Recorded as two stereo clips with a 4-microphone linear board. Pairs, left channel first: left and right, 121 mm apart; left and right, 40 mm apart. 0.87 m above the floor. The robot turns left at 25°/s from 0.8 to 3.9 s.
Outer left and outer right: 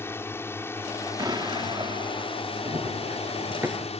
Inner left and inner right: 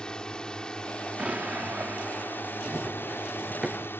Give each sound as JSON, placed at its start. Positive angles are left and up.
{"t": 0.0, "sound": "a drone", "azimuth_deg": 160}
{"t": 1.2, "sound": "an explosion", "azimuth_deg": -40}
{"t": 2.6, "sound": "running footsteps", "side_deg": -40}